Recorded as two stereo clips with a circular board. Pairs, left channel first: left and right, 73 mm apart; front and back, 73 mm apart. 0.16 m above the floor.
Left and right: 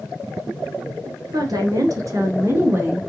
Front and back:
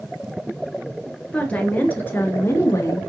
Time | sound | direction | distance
1.3 | a woman speaking | 75° right | 3.5 m